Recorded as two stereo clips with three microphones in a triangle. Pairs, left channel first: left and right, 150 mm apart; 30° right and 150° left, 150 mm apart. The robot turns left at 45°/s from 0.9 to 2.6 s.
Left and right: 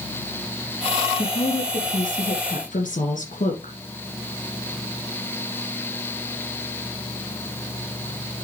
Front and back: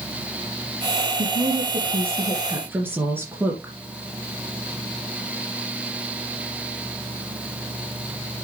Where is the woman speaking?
140° left, 2.5 m; by 3.7 s 75° left, 2.5 m.